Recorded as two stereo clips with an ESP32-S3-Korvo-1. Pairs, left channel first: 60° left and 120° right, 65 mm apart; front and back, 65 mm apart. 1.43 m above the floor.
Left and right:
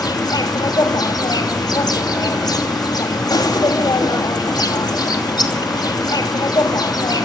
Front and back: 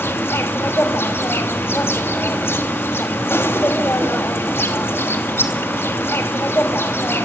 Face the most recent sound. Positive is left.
turn(degrees=55)